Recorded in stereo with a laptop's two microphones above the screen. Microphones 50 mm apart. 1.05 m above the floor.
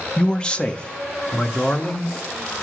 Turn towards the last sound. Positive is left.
turn(degrees=20)  # may be behind; listen again after turning